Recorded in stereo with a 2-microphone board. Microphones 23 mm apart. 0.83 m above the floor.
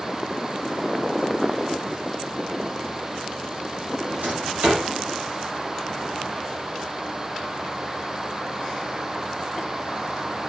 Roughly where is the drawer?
Right.